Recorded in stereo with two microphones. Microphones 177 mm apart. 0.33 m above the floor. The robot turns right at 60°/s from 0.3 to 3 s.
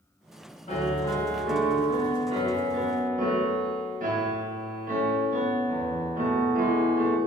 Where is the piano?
130° left, 1.0 m; by 7.2 s 90° right, 1.0 m.